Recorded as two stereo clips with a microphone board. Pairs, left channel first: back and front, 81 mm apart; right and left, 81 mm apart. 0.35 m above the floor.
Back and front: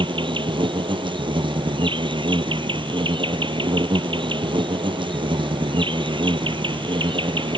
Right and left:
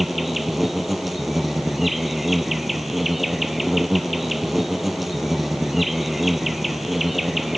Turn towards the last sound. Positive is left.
turn(degrees=0)